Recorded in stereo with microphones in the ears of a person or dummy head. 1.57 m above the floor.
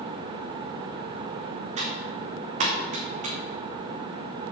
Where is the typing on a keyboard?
45° right (ahead or behind), 2.5 m.